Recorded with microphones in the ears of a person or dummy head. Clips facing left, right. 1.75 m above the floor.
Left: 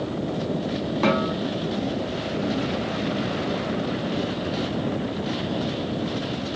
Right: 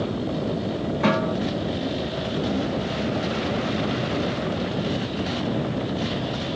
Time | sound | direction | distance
1.0 | a snare drum | 55° left (ahead or behind) | 1.9 m